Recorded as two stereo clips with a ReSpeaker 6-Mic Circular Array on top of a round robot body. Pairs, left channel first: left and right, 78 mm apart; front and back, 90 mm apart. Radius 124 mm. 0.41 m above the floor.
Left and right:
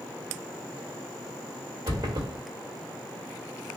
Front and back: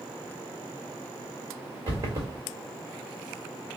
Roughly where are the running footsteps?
Behind right.